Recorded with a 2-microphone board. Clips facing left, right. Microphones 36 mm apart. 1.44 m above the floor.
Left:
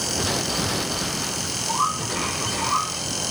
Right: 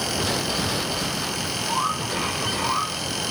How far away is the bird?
About 6 m.